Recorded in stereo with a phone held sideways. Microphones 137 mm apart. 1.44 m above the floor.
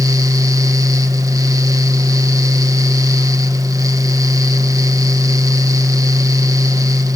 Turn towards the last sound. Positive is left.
turn(degrees=-25)  # may be behind; listen again after turning